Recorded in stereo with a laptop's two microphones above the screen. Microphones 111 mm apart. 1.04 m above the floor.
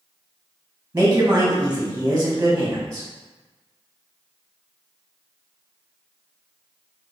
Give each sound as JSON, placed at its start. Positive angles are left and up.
{"t": 0.9, "sound": "a woman speaking", "side_deg": -20, "distance_m": 1.0}